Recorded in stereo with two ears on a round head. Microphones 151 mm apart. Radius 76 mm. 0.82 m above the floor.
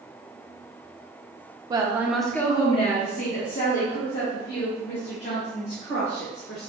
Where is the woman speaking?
25° right (ahead or behind), 0.6 m; by 6.7 s 80° left, 2.5 m.